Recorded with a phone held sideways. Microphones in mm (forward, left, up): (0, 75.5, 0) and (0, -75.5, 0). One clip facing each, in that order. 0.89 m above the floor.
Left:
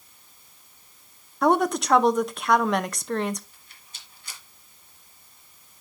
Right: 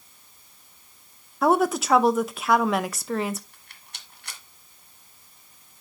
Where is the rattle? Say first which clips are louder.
Right 3 dB; 70° right (ahead or behind), 1.8 m.